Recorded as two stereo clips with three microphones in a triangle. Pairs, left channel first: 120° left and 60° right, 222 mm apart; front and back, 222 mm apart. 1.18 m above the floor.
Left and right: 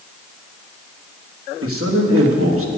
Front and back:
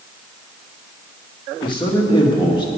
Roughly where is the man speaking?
Right.